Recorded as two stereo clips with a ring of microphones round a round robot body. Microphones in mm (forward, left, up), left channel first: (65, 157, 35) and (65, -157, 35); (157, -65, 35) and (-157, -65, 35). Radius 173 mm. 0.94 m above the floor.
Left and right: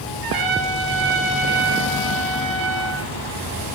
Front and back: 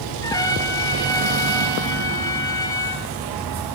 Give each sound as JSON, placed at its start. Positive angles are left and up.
{"t": 0.2, "sound": "a trumpet", "azimuth_deg": -80, "distance_m": 4.0}